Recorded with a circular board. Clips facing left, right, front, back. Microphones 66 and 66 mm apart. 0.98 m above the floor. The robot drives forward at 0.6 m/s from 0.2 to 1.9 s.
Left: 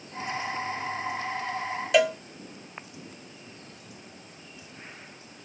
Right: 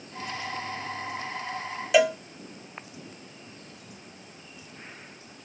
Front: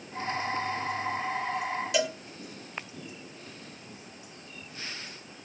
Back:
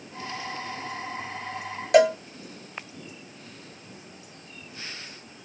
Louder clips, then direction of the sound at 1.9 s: Right 1 dB, back 13 dB; 175° right.